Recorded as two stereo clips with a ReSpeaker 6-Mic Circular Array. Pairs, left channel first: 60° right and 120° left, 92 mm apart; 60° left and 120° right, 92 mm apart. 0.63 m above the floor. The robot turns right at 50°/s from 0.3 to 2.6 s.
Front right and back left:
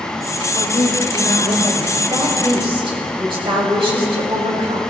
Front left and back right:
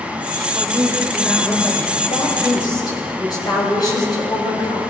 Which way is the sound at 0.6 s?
75° right.